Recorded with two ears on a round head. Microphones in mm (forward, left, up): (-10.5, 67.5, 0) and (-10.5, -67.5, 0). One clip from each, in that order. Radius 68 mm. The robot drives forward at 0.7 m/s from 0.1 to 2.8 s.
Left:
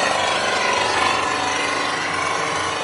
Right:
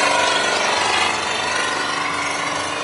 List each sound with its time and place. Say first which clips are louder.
0.0 s an engine running: right 2 dB; 50° right (ahead or behind), 1.3 m; by 2.9 s 20° right (ahead or behind), 3 m